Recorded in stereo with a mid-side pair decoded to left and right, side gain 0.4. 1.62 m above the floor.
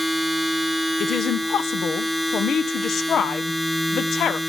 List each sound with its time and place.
0.0 s a machine running: 10° left, 2.5 m
1.0 s a woman speaking: 65° left, 0.7 m